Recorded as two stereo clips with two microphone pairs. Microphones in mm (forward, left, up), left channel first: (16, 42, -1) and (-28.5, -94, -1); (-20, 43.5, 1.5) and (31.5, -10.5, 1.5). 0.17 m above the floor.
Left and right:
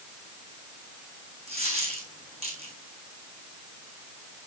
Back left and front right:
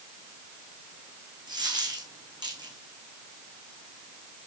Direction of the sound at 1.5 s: 65° right.